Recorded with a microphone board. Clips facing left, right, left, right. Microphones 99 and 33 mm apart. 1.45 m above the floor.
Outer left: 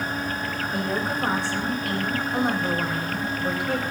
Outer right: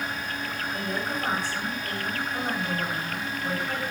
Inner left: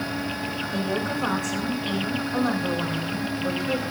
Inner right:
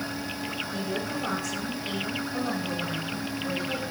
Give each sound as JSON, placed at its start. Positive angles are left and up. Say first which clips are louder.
{"t": 0.7, "sound": "a woman speaking", "louder": "outer left 5 dB, inner left 7 dB", "side_deg": 70, "distance_m": 6.0}